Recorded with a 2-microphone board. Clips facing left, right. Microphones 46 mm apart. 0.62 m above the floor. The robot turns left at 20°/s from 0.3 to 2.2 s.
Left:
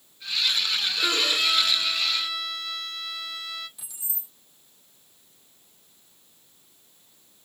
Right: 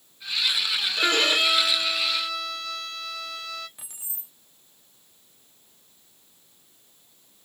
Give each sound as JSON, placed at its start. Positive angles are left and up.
{"t": 1.0, "sound": "a violin", "side_deg": -45, "distance_m": 1.0}
{"t": 3.8, "sound": "keys jangling", "side_deg": -40, "distance_m": 0.9}